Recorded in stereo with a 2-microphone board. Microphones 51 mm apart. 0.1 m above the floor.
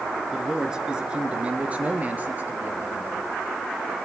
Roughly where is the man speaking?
Centre.